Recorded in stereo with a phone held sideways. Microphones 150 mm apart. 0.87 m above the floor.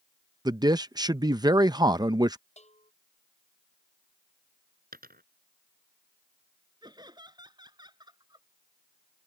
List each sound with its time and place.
0.5 s a man speaking: 25° right (ahead or behind)
2.6 s a bell: 50° left (ahead or behind)
4.9 s a dropped coin: 90° right
6.8 s laughter: 30° right (ahead or behind)